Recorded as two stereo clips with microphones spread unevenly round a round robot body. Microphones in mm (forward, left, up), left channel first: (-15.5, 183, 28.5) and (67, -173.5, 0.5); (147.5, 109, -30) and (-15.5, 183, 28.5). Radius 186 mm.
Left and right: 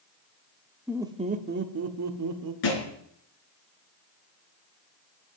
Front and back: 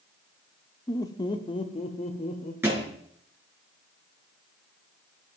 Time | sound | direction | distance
0.9 | laughter | 5° left | 0.8 m
2.6 | a thud | 80° left | 4 m